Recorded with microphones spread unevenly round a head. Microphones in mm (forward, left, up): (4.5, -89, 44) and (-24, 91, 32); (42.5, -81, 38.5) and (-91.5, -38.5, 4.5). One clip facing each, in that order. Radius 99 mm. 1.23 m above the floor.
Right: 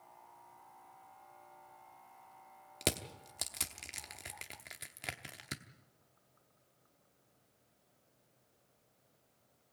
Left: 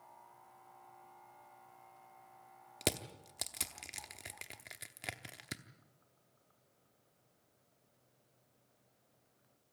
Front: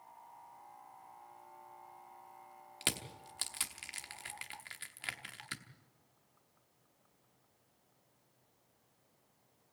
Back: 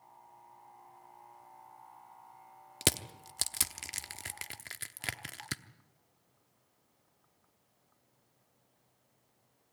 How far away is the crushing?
About 0.8 m.